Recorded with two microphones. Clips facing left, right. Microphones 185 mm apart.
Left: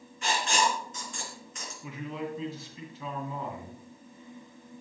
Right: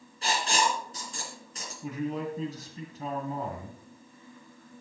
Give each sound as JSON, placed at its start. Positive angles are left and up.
{"t": 0.2, "sound": "writing", "side_deg": -35, "distance_m": 3.5}
{"t": 1.8, "sound": "a man speaking", "side_deg": -45, "distance_m": 2.5}